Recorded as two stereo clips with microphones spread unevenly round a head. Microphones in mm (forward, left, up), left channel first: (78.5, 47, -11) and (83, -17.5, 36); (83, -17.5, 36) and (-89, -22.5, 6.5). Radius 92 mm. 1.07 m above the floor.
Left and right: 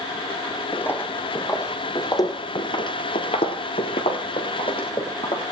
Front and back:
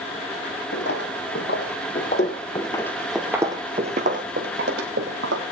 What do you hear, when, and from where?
0.7 s footsteps: 25° left, 3.5 m; by 5.4 s 155° left, 3.5 m